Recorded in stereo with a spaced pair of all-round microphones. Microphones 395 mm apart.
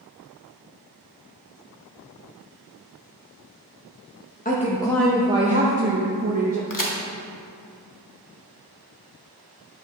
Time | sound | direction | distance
4.5 | a woman speaking | 20° left (ahead or behind) | 0.9 m
6.7 | a crack | 50° left (ahead or behind) | 1.1 m